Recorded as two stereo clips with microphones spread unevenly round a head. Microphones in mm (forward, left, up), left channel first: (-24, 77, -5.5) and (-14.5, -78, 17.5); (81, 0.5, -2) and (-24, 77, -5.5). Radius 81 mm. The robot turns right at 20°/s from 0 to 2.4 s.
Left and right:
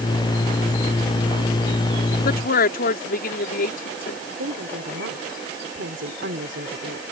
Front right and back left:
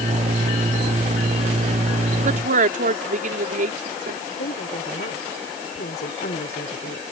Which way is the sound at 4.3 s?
65° right.